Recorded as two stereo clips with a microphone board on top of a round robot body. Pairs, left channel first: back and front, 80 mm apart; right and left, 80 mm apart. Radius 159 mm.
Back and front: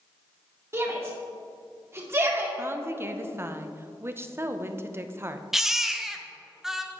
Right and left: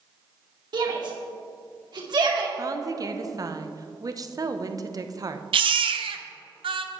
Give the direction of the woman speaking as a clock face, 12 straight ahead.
10 o'clock.